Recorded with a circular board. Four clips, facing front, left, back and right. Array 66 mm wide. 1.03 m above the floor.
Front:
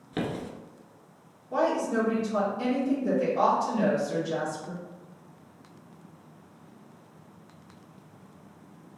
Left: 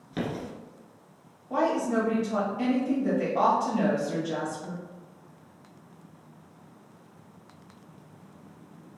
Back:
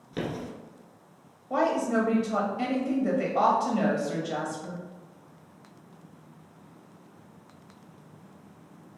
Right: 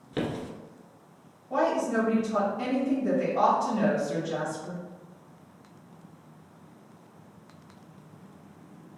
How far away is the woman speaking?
About 1.7 m.